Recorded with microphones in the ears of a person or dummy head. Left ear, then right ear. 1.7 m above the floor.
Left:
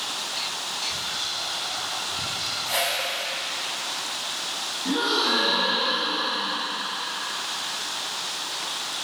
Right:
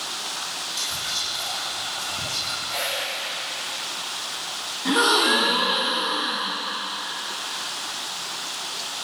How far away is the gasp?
About 1.4 m.